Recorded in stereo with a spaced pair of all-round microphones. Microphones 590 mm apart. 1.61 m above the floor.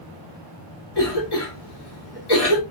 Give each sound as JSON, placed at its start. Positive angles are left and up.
{"t": 0.9, "sound": "a cough", "side_deg": 75, "distance_m": 2.0}